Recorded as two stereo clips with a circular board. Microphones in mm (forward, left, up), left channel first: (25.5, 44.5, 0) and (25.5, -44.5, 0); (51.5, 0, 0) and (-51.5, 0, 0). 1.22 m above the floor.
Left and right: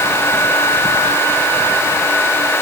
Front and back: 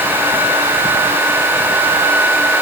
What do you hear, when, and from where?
Only background noise.